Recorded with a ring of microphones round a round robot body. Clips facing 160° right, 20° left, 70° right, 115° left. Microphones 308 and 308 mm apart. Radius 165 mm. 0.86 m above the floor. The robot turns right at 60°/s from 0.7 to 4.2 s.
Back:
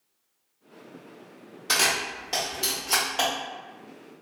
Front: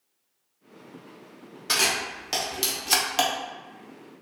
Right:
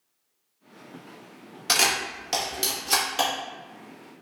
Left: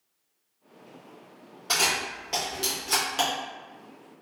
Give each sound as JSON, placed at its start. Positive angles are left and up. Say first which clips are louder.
{"t": 1.7, "sound": "a camera shutter", "louder": "even, right 2 dB", "azimuth_deg": -60, "distance_m": 0.5}